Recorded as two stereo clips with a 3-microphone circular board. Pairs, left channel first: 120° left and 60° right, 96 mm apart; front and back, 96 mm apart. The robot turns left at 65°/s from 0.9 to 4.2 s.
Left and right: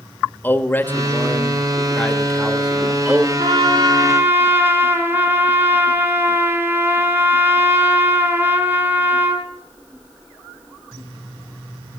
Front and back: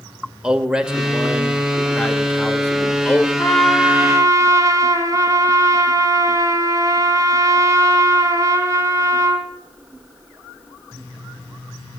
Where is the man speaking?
115° left, 0.9 m; by 3.3 s 45° right, 0.9 m.